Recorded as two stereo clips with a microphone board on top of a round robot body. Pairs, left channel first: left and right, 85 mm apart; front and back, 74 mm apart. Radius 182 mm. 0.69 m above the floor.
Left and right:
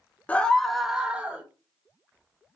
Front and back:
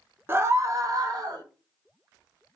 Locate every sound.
0.3 s a scream: 150° left, 0.8 m; by 1.4 s 160° right, 1.2 m